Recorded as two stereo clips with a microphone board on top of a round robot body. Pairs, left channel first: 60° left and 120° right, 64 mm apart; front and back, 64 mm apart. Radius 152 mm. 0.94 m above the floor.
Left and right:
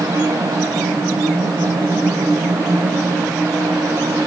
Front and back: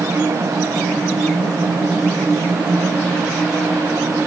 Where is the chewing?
I don't hear chewing.